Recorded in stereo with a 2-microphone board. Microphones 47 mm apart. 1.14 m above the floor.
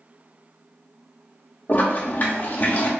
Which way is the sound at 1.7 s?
40° left (ahead or behind).